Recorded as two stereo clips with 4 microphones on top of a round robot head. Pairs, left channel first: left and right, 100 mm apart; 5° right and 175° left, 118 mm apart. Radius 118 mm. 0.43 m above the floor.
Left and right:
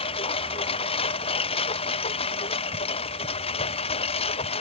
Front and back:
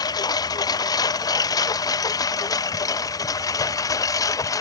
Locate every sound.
0.0 s a lawn mower: 50° left; by 4.6 s 55° left